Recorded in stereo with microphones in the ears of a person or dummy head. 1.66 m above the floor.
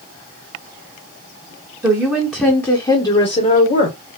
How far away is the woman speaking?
About 1.6 m.